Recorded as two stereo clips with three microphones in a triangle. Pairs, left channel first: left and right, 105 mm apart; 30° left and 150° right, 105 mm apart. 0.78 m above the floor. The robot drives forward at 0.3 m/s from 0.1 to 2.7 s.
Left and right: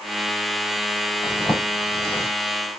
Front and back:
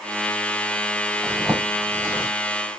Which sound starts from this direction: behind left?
A zipper, at 1.2 s.